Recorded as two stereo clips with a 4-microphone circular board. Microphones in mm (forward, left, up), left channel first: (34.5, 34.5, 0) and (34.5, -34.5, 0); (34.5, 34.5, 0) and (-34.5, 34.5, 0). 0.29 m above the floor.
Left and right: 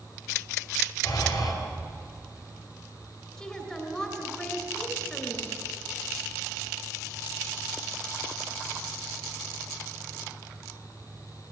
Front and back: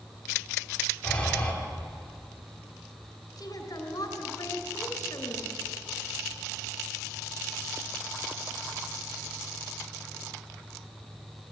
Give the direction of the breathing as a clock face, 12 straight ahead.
10 o'clock.